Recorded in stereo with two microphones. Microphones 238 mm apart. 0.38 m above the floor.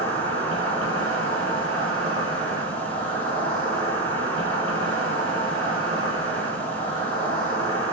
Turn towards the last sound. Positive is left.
turn(degrees=-70)  # may be behind; listen again after turning